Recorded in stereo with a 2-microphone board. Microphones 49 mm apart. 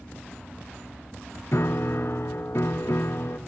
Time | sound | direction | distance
1.5 | a piano | 60° left (ahead or behind) | 0.7 m